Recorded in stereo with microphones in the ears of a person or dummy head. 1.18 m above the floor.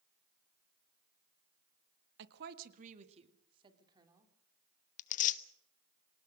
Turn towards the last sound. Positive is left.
turn(degrees=45)  # may be behind; listen again after turning